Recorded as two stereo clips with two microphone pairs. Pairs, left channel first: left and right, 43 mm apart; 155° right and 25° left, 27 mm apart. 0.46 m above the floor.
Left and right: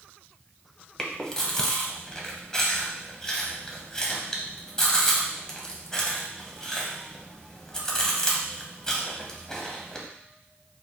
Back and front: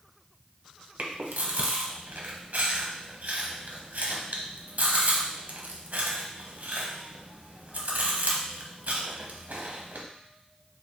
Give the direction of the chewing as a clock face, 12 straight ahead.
12 o'clock.